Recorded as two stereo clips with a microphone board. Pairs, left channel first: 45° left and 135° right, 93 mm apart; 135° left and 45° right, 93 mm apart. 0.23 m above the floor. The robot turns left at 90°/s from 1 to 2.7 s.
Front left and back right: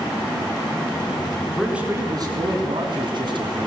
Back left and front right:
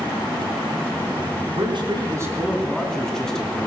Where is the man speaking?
40° right, 3 m; by 3.7 s 145° right, 3 m.